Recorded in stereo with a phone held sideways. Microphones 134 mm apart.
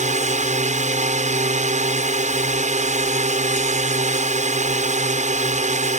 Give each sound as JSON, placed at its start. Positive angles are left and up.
{"t": 0.0, "sound": "a drone", "side_deg": -65}